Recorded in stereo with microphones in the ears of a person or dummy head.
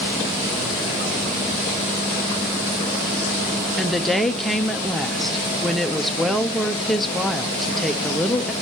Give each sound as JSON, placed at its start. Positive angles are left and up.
{"t": 3.8, "sound": "a woman speaking", "side_deg": 5, "distance_m": 0.8}